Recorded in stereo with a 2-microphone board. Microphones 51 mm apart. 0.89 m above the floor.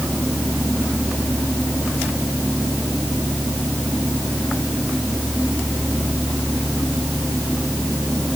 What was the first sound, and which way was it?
Only background noise.